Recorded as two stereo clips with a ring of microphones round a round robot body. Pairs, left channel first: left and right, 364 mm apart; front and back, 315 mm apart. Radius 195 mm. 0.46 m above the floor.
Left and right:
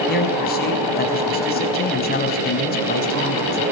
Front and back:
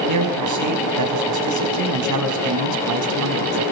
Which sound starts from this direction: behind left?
A man speaking, at 0.1 s.